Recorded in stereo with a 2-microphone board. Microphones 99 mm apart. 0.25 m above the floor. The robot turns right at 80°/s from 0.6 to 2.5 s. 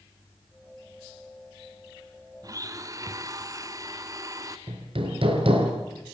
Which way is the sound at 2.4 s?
40° right (ahead or behind).